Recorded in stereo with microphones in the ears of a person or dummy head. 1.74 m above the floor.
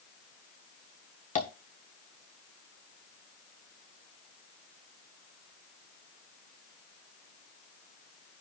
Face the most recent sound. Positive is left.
turn(degrees=45)  # may be behind; listen again after turning